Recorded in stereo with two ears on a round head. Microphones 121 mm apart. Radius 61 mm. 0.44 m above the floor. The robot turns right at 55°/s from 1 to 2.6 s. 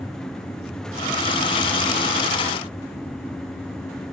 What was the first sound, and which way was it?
Only background noise.